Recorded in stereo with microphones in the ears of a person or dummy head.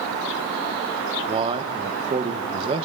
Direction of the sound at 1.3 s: 30° right (ahead or behind).